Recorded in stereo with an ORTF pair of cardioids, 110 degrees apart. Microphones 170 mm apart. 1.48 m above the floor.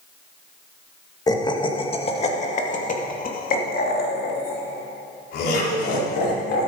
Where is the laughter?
20° left, 2 m; by 6.7 s 75° left, 5 m.